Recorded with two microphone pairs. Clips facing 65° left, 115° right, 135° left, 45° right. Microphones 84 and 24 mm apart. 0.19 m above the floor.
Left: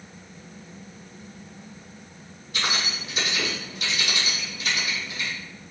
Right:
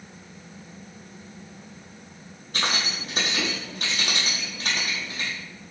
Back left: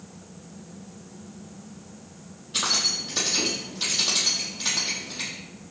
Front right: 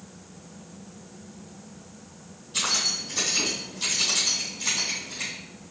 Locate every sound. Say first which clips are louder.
2.5 s keys jangling: right 1 dB, back left 1 dB; 160° right, 5.5 m